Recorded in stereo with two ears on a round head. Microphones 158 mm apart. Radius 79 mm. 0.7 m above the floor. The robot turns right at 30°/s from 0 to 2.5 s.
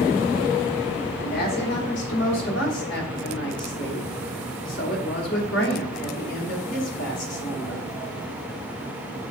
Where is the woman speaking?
45° left, 2.0 m; by 7.8 s 85° left, 2.0 m.